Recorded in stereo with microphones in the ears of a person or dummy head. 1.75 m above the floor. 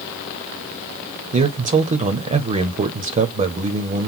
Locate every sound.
1.3 s a man speaking: 30° right (ahead or behind), 0.7 m